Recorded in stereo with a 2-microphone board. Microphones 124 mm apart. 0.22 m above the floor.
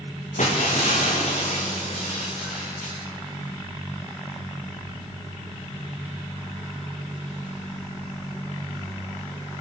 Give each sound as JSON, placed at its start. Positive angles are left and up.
{"t": 0.4, "sound": "breaking glass", "side_deg": 80, "distance_m": 7.0}